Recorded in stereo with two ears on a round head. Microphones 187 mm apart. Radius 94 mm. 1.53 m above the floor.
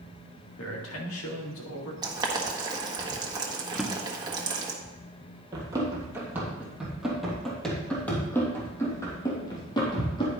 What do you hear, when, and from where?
0.6 s a man speaking: 75° left (ahead or behind), 2.5 m
2.0 s boiling: 20° right (ahead or behind), 1.3 m
3.8 s a drawer: centre (ahead or behind), 1.0 m
5.5 s running footsteps: 20° right (ahead or behind), 2.5 m; by 10.3 s 25° left (ahead or behind), 3.5 m